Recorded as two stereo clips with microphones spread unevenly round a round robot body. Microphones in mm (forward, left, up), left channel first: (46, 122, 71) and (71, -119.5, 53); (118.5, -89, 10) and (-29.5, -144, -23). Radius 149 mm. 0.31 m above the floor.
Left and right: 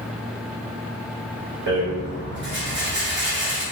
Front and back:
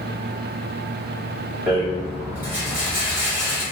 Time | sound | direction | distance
1.7 | a rattle | 95° right | 1.3 m